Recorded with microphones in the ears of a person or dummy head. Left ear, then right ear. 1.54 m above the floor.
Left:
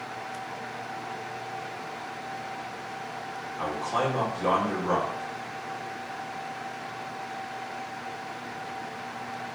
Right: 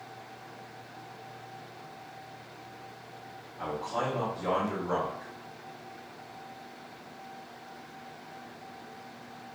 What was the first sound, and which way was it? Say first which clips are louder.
A man speaking: left 4 dB; 65° left (ahead or behind).